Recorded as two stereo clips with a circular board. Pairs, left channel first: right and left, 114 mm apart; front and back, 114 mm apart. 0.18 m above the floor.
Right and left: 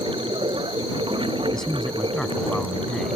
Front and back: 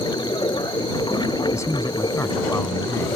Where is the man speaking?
10° right.